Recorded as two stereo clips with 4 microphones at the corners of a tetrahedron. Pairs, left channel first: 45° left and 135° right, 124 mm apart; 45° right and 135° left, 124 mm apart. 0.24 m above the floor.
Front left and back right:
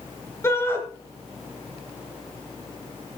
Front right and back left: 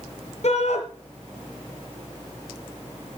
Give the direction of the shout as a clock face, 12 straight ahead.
1 o'clock.